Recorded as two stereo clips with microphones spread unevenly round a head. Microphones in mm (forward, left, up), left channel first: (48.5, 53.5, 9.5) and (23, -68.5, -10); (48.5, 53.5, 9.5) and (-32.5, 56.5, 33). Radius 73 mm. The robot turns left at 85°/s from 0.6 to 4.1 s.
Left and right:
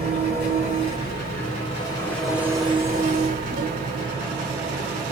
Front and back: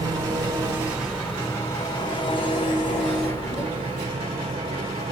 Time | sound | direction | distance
0.0 | an engine running | 130° left | 2.5 m